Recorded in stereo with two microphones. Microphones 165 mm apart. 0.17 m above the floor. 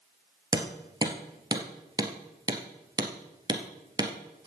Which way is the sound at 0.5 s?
25° right (ahead or behind).